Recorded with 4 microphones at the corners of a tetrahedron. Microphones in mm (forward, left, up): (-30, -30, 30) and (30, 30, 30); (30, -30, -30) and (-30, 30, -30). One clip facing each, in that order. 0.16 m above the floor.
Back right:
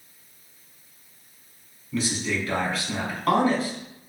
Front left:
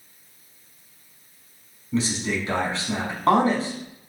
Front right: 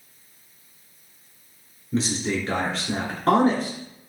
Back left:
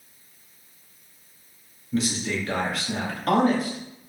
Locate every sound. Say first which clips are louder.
1.9 s a man speaking: front left 2 dB, front right 1 dB; 5° right, 1.3 m